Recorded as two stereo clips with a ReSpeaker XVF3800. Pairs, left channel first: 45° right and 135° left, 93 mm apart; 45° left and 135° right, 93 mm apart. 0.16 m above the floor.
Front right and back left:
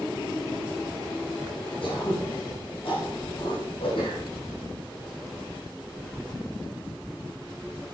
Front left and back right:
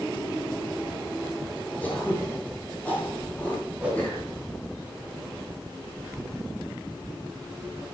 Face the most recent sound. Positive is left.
turn(degrees=-60)